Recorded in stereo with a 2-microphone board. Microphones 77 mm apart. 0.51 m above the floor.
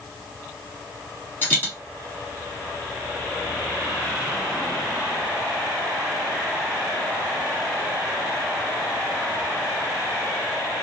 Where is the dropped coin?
25° left (ahead or behind), 1.6 m.